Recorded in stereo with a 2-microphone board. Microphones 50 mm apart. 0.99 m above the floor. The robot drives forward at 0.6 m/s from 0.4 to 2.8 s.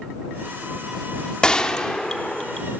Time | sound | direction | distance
1.4 | a gunshot | 15° left (ahead or behind) | 1.1 m